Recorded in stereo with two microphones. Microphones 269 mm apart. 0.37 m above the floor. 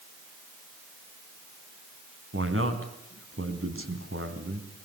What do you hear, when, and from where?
2.3 s a man speaking: 55° right (ahead or behind), 3.5 m